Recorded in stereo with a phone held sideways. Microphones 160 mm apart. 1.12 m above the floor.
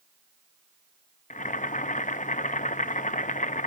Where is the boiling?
50° left (ahead or behind), 0.6 m.